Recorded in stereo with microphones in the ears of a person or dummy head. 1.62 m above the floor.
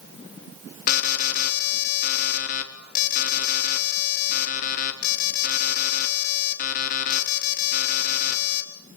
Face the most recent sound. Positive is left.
turn(degrees=45)  # may be behind; listen again after turning